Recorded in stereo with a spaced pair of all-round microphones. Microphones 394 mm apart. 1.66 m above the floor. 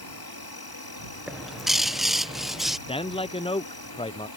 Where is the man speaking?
15° left (ahead or behind).